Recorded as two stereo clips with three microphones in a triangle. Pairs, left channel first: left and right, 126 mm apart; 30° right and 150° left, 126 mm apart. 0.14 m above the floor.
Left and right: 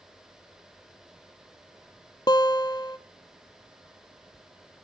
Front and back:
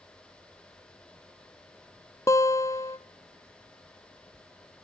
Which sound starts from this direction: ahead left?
A guitar, at 2.3 s.